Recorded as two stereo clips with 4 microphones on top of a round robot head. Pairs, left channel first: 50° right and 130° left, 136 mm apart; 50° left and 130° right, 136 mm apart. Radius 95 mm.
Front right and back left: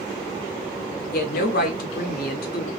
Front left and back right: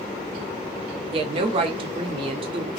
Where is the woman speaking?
75° right, 0.7 m.